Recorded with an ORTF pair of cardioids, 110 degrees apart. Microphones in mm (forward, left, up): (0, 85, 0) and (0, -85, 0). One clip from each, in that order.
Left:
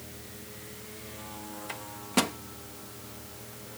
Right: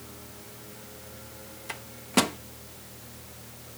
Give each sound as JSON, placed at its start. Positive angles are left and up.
{"t": 1.7, "sound": "a microwave", "azimuth_deg": -20}